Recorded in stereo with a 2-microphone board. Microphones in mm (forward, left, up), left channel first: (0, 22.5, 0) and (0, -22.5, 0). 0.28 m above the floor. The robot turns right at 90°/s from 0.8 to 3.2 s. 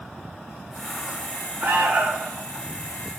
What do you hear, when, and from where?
1.6 s an alarm: 85° right, 5 m; by 2.3 s 20° right, 5 m